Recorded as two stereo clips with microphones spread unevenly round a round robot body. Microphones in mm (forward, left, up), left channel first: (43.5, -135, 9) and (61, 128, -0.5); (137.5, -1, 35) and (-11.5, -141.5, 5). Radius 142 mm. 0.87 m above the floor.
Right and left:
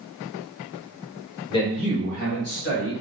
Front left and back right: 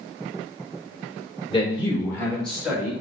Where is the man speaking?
20° right, 2.5 m; by 2.9 s 55° right, 3 m.